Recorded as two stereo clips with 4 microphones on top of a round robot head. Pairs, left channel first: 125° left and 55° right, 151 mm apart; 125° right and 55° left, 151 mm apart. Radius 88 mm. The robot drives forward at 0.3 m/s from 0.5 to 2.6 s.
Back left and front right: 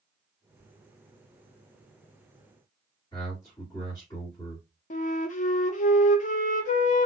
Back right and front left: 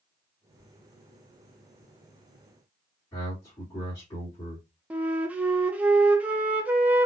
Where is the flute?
135° left, 0.6 m.